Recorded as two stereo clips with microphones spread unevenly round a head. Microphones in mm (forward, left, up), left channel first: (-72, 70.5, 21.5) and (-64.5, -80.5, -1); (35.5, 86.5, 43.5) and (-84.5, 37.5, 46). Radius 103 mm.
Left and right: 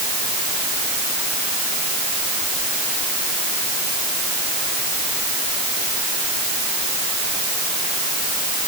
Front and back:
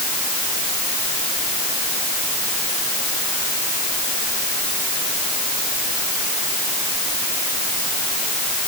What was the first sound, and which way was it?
Only background noise.